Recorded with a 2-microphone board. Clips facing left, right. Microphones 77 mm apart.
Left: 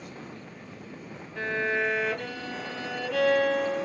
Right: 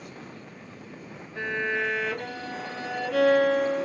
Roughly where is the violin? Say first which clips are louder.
Left 1 dB; centre.